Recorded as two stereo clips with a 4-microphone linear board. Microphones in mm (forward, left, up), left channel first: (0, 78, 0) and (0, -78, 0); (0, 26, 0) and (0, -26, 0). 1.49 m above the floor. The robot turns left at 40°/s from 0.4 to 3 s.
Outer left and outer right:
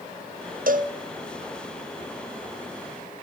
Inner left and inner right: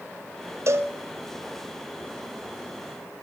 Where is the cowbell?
65° right (ahead or behind), 0.6 m; by 0.9 s 55° right (ahead or behind), 0.6 m.